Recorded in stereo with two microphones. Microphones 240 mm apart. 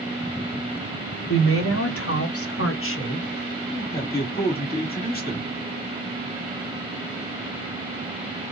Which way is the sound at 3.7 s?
40° left (ahead or behind).